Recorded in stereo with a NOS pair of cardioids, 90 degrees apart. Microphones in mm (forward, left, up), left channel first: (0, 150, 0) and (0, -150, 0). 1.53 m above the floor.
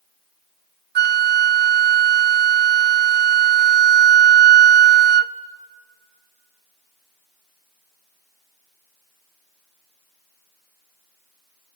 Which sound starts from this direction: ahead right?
A flute, at 0.9 s.